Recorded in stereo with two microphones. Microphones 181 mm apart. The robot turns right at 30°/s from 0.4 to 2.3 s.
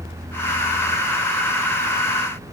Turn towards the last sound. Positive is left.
No sound to turn to.